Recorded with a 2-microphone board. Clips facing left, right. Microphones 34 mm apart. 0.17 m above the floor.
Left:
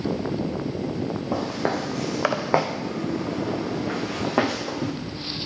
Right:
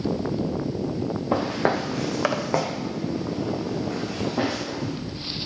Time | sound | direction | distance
1.3 | footsteps | 30° right (ahead or behind) | 1.0 m